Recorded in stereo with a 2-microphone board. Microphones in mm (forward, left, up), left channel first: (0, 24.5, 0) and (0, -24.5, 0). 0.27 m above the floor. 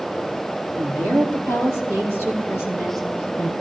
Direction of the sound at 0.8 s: 60° right (ahead or behind).